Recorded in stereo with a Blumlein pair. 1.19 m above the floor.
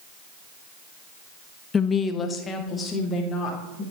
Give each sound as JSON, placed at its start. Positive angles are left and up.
{"t": 1.7, "sound": "a woman speaking", "azimuth_deg": 20, "distance_m": 0.5}